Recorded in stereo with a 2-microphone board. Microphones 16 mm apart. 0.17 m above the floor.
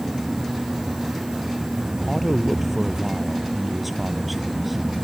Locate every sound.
2.1 s a man speaking: 5° right (ahead or behind)